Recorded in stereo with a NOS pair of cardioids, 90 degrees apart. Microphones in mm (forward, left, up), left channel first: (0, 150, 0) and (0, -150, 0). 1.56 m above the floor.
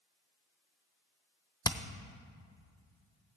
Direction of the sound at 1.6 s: 15° left.